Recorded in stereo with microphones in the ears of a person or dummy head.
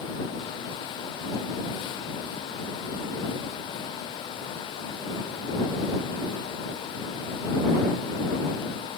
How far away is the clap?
I don't hear a clap.